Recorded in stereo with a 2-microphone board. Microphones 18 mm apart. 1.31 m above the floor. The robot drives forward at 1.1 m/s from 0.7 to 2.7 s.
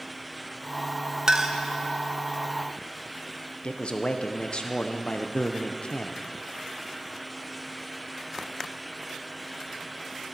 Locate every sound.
1.3 s a clink: 30° right (ahead or behind), 0.7 m; by 1.6 s 20° right (ahead or behind), 1.0 m
3.6 s a man speaking: 55° left (ahead or behind), 0.8 m